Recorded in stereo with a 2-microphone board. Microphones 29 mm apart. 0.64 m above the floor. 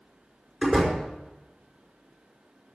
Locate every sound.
0.6 s a door slam: 5° right (ahead or behind), 5 m